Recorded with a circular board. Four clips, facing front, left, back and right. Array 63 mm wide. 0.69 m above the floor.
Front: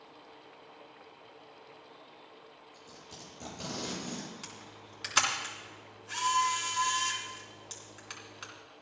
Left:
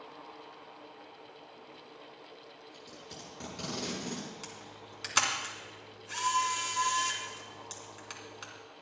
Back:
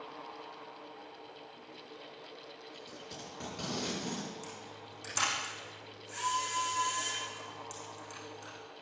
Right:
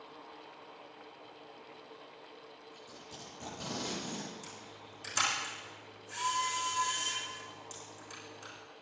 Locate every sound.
2.7 s tape being pulled: 130° left, 7.5 m
4.4 s a camera shutter: 45° left, 3.5 m